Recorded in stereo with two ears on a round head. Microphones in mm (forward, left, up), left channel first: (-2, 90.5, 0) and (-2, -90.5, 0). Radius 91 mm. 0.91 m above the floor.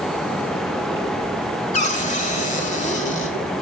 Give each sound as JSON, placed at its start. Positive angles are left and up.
{"t": 1.7, "sound": "a cupboard door", "side_deg": 35, "distance_m": 1.4}